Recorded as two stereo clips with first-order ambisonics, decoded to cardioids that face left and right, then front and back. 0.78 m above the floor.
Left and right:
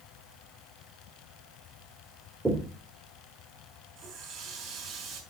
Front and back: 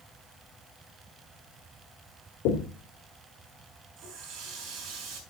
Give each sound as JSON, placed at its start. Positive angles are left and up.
{"t": 2.5, "sound": "knocking", "azimuth_deg": -5, "distance_m": 1.8}
{"t": 4.0, "sound": "a running tap", "azimuth_deg": -140, "distance_m": 4.0}